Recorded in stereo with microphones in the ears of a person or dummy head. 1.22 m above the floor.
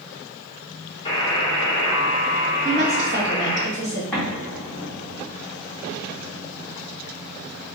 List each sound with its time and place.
1.1 s a buzzer: 30° left (ahead or behind), 1.4 m
2.6 s a woman speaking: 45° right (ahead or behind), 1.6 m
4.1 s an explosion: 5° left (ahead or behind), 1.5 m